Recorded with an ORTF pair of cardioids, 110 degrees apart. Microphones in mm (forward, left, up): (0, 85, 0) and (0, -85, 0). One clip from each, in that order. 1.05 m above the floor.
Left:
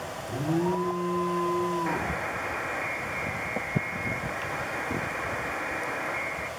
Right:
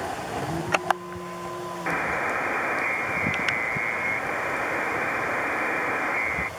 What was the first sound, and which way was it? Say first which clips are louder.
An alarm: even; 50° left.